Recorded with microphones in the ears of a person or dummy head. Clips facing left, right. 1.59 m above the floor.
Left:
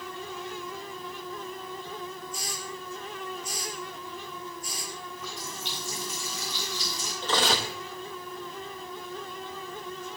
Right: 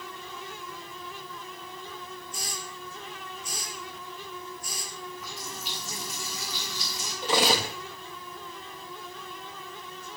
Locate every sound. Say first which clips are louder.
2.3 s a hiss: left 3 dB; 55° right (ahead or behind), 6 m
5.2 s a running tap: left 1 dB; 5° right (ahead or behind), 6.5 m
7.2 s cutlery clinking: right 2 dB; 10° right (ahead or behind), 1.4 m